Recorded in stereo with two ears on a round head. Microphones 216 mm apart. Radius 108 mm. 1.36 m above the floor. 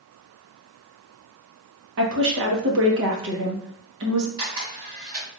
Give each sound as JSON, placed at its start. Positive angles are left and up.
{"t": 2.0, "sound": "a woman speaking", "side_deg": -55, "distance_m": 1.3}
{"t": 4.4, "sound": "a camera shutter", "side_deg": -20, "distance_m": 2.0}